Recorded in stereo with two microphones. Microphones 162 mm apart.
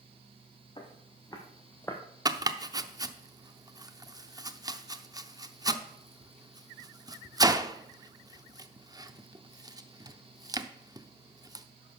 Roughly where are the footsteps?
Left.